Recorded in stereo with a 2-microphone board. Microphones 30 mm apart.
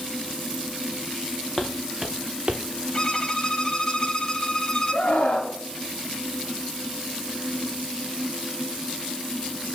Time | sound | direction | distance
1.6 | footsteps | 15° left (ahead or behind) | 1.6 m
2.9 | a violin | 30° left (ahead or behind) | 1.0 m
4.9 | a scream | 55° left (ahead or behind) | 2 m